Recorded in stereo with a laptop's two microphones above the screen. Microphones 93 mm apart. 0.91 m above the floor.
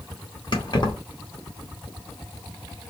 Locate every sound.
0.5 s keys jangling: 50° left (ahead or behind), 0.8 m